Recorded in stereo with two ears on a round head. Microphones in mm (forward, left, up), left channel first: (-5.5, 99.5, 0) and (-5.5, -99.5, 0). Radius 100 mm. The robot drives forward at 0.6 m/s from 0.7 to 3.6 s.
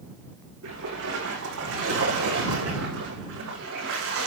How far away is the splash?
About 9.5 m.